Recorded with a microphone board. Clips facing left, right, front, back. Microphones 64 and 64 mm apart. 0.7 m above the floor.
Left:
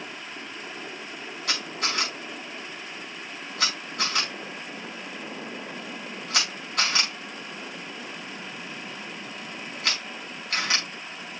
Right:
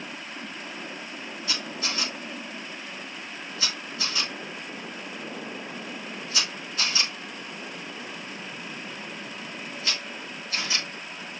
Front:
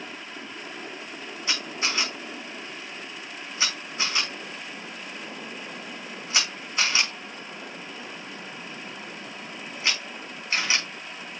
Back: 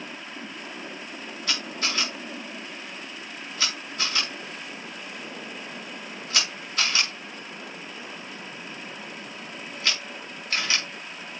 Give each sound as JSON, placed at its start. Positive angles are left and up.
{"t": 1.5, "sound": "a camera shutter", "azimuth_deg": 70, "distance_m": 5.0}